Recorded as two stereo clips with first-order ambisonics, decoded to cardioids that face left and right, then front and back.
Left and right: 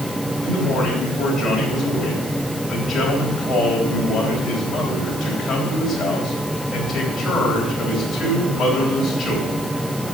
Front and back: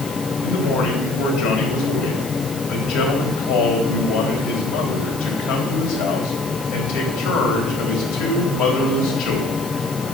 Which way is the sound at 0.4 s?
10° left.